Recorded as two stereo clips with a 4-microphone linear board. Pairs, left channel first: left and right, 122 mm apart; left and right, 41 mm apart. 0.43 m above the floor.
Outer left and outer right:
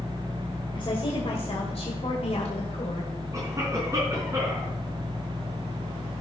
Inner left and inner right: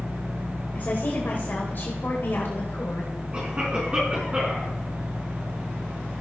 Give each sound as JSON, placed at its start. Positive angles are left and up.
{"t": 0.8, "sound": "a woman speaking", "side_deg": 45, "distance_m": 2.0}
{"t": 3.3, "sound": "a cough", "side_deg": -25, "distance_m": 4.0}